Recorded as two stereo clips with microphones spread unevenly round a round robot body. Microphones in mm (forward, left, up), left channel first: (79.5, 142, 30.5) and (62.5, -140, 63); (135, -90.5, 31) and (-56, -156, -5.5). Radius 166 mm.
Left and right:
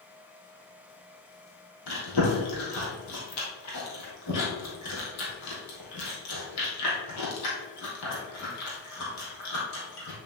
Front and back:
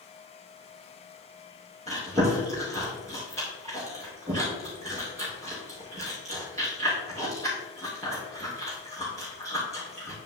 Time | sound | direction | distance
1.9 | chewing | 130° left | 2.5 m